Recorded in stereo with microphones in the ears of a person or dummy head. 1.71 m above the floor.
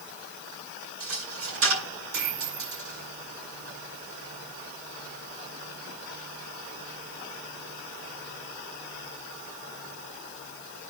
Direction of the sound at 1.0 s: 75° right (ahead or behind).